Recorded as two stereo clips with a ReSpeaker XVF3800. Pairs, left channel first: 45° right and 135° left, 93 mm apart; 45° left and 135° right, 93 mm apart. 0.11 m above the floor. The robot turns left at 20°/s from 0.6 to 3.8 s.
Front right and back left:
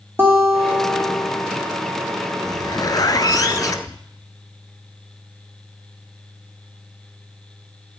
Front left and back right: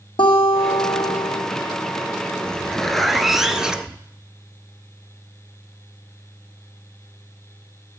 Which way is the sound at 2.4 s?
30° right.